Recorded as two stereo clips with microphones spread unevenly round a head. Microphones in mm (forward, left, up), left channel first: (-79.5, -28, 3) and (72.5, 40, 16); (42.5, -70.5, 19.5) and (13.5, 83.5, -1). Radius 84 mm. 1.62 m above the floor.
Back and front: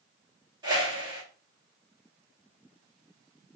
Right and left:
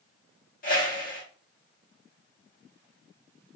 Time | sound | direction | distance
0.6 | a whoosh | 45° right | 1.2 m